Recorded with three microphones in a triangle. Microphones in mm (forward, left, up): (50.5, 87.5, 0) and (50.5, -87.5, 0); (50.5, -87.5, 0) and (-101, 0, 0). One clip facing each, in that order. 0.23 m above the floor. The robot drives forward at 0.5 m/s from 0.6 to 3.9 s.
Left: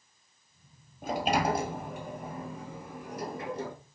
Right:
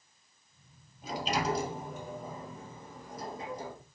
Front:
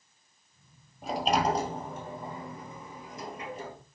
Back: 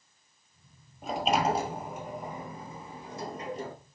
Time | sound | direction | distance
1.0 | a sliding door | 60° left | 1.8 m